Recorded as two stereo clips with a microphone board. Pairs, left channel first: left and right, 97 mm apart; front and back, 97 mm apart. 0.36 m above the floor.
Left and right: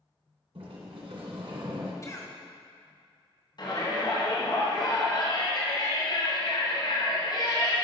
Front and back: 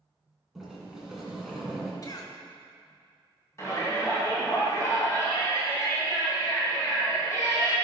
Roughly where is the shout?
Ahead left.